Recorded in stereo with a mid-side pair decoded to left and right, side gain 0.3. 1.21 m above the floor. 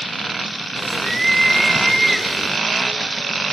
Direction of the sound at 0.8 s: 20° right.